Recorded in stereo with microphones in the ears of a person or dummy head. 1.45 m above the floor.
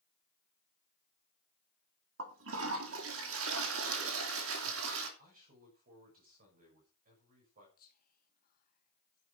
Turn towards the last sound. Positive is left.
turn(degrees=55)  # may be behind; listen again after turning